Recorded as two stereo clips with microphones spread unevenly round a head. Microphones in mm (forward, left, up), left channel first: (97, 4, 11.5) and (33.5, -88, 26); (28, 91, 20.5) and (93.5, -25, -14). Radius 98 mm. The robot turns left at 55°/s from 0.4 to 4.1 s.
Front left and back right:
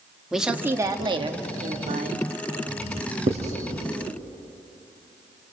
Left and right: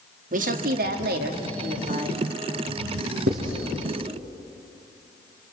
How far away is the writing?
About 5 m.